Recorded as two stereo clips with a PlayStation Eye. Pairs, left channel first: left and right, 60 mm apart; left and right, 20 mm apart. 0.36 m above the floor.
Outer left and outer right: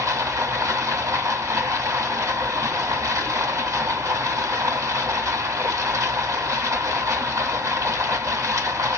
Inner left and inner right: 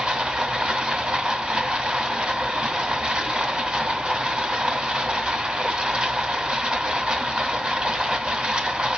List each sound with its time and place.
0.0 s running water: 60° right (ahead or behind), 2.5 m